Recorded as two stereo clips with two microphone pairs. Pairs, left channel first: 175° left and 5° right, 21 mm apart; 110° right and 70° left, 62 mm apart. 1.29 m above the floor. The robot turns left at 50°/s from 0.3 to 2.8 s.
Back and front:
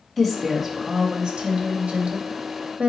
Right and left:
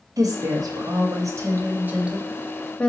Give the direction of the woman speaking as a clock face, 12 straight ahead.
9 o'clock.